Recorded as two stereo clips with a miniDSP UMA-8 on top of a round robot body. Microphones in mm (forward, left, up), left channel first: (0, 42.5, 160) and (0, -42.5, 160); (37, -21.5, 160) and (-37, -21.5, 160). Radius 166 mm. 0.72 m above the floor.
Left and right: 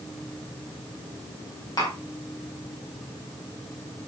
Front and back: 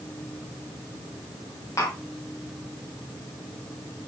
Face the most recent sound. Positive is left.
turn(degrees=50)